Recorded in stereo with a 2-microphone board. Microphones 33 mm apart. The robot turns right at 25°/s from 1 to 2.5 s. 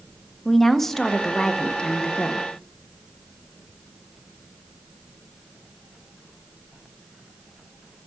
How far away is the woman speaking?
About 0.8 m.